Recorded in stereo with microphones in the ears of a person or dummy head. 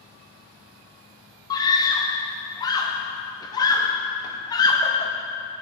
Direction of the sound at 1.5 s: 20° left (ahead or behind).